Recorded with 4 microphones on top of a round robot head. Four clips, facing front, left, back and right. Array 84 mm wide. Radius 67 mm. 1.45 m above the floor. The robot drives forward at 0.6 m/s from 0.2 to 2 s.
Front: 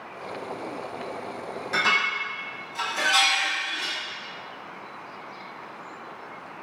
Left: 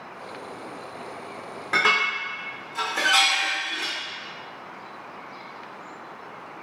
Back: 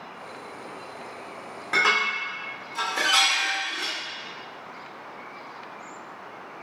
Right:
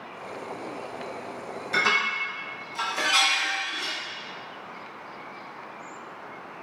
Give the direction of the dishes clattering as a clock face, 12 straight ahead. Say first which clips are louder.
Left 2 dB, back 1 dB; 8 o'clock.